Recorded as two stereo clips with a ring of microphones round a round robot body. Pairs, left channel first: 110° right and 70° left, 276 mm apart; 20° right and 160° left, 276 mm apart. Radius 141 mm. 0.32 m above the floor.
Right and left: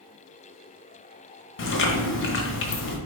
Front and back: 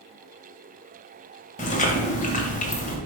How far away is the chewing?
About 1.4 m.